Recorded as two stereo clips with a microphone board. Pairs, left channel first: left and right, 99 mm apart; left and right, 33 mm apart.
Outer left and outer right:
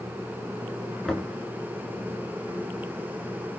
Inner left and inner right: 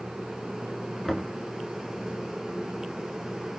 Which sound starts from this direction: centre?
Knocking, at 1.1 s.